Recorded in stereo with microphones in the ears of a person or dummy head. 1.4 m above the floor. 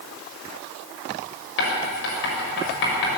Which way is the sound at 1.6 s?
65° left (ahead or behind).